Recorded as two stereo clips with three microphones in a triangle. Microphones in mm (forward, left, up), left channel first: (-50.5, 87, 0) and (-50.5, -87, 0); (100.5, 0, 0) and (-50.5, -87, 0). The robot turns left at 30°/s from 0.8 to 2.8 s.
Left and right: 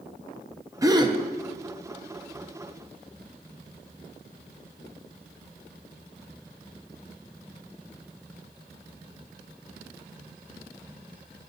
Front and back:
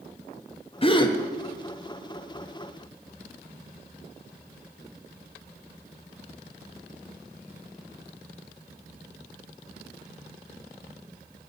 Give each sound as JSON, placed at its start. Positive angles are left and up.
{"t": 0.8, "sound": "a gasp", "azimuth_deg": -25, "distance_m": 0.6}